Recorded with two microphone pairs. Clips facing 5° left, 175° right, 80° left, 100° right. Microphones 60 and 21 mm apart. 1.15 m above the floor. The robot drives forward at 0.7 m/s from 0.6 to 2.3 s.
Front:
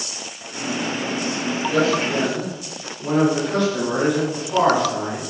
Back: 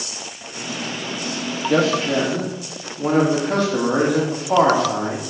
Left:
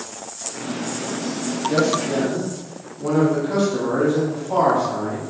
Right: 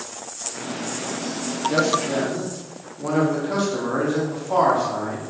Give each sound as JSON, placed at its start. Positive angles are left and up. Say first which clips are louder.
{"t": 1.7, "sound": "a man speaking", "louder": "back 2 dB, left 1 dB", "azimuth_deg": -175, "distance_m": 0.8}